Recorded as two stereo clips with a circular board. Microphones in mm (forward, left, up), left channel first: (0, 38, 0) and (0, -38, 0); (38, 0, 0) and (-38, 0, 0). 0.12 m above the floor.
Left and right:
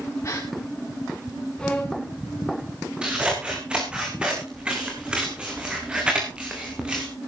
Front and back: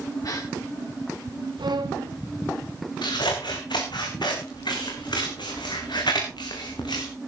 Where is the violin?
170° left, 1.2 m.